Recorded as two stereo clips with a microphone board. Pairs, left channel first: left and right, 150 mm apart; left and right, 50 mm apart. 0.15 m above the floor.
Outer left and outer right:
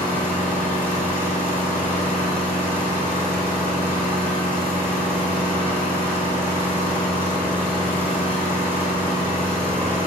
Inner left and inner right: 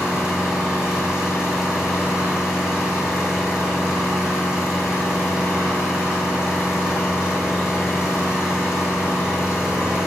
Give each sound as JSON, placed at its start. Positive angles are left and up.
{"t": 0.0, "sound": "an engine running", "side_deg": -15, "distance_m": 2.0}